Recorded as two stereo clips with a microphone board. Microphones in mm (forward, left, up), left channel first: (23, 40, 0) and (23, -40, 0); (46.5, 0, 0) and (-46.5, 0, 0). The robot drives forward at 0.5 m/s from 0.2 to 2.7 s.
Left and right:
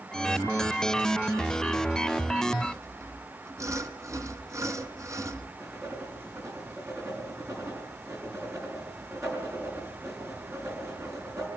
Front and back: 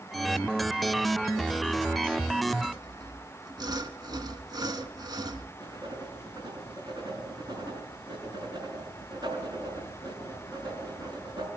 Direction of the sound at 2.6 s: 140° right.